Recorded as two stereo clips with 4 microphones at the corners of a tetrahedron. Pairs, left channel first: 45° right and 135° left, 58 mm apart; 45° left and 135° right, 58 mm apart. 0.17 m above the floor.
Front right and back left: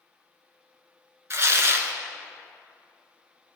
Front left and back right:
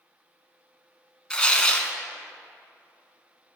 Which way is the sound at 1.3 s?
115° left.